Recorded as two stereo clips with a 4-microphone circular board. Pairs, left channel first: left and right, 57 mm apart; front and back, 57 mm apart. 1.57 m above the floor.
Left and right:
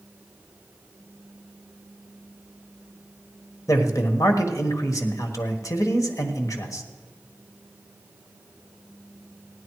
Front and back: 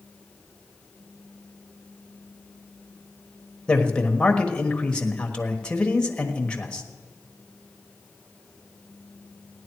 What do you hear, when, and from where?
3.7 s a man speaking: 75° left, 1.3 m